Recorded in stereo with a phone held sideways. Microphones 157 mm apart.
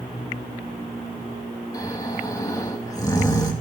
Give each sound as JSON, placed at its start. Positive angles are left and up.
{"t": 1.7, "sound": "snoring", "side_deg": 25, "distance_m": 2.0}